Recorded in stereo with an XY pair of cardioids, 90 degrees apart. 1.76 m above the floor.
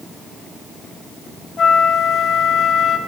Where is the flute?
55° left, 0.9 m.